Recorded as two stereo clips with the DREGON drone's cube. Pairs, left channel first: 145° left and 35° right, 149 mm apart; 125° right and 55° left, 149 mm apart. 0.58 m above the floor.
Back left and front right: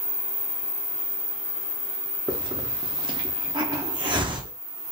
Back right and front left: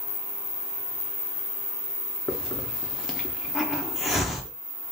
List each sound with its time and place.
2.3 s a hiss: 35° right, 0.6 m